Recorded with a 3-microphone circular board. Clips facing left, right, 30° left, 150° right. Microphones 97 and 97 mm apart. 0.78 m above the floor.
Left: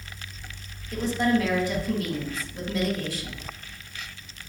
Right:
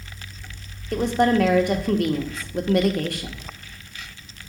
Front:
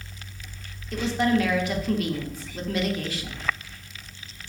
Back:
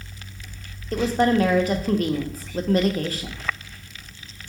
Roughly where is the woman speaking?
Right.